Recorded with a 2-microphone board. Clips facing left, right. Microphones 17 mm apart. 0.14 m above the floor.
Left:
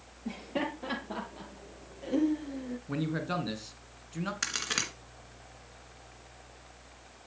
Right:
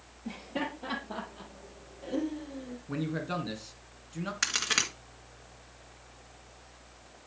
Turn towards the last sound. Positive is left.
turn(degrees=-15)  # may be behind; listen again after turning